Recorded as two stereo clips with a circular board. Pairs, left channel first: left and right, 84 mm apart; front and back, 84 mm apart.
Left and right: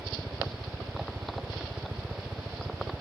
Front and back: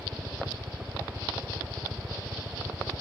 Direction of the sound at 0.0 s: 155° right.